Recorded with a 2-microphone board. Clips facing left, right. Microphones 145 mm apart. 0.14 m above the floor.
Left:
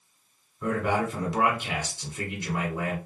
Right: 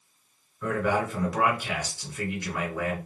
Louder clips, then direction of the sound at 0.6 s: Even; 25° left (ahead or behind).